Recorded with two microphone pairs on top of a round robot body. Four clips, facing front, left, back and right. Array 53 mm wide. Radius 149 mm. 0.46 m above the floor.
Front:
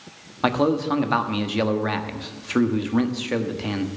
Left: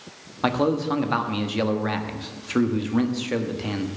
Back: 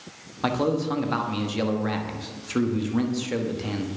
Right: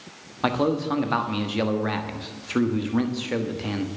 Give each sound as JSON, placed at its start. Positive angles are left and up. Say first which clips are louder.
{"t": 0.4, "sound": "a man speaking", "louder": "left 1 dB, front 3 dB", "azimuth_deg": 0, "distance_m": 1.5}